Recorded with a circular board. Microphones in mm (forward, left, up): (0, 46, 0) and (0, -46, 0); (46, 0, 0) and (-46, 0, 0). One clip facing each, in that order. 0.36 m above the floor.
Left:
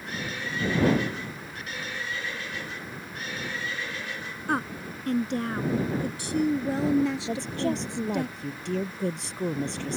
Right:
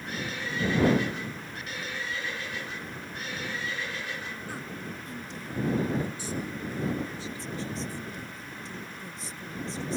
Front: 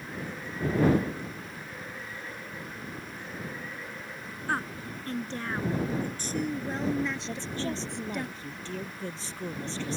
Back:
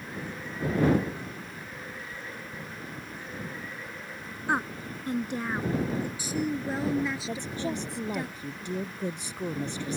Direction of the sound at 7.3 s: 105° left.